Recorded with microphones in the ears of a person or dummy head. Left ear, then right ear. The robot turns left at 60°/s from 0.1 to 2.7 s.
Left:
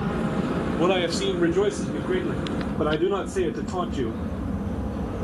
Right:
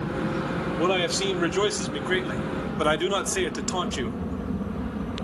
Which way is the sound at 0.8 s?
5° left.